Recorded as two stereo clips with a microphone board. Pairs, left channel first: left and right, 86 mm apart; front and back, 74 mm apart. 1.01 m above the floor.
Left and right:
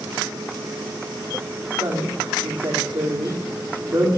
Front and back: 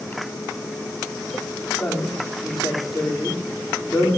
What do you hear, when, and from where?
1.8 s a woman speaking: 95° right, 2.5 m